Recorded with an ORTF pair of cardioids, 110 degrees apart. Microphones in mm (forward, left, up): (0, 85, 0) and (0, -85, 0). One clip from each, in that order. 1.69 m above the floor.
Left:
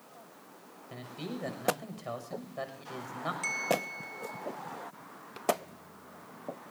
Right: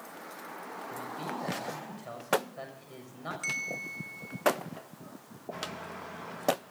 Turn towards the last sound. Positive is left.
turn(degrees=10)